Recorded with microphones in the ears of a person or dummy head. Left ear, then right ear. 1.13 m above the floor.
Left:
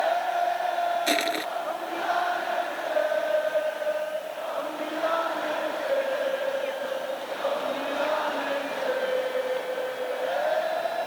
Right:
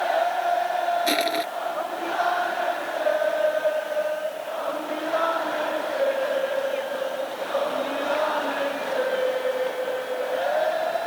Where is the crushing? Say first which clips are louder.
Right 2 dB; 15° left (ahead or behind).